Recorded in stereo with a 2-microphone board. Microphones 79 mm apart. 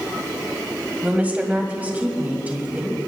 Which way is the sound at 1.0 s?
20° right (ahead or behind).